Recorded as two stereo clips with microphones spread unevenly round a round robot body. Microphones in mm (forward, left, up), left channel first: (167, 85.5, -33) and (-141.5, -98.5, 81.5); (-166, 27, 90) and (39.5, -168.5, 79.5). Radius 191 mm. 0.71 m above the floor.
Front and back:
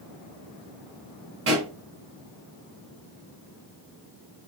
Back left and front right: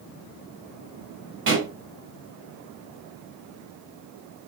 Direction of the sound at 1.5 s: 90° right.